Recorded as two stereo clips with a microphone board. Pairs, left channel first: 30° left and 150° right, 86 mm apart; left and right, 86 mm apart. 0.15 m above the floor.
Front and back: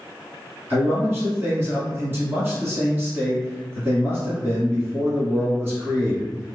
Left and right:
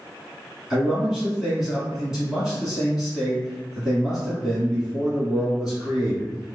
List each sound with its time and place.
0.7 s a man speaking: 165° right, 1.7 m